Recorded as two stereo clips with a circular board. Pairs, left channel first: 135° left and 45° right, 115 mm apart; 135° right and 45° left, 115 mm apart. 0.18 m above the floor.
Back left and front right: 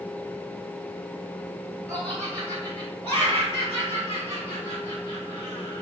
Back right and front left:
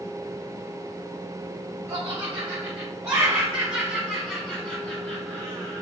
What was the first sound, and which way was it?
Laughter, 65° left.